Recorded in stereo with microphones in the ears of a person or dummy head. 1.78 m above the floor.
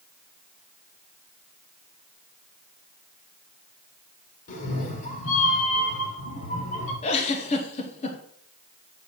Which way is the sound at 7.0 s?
40° left (ahead or behind).